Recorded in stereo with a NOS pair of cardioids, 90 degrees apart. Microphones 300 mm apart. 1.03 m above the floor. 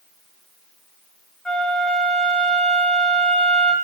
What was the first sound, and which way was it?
A flute, straight ahead.